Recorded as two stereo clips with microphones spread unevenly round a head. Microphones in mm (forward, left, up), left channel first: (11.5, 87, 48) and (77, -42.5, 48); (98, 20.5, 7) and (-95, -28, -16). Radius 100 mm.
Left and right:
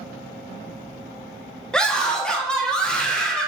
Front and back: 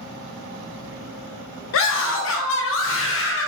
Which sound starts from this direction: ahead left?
A scream, at 1.7 s.